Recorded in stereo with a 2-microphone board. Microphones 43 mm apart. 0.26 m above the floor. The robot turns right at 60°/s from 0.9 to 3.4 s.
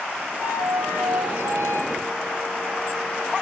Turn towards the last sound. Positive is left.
turn(degrees=15)